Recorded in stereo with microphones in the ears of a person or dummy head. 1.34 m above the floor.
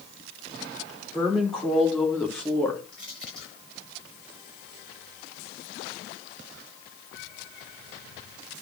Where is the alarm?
No alarm in this recording.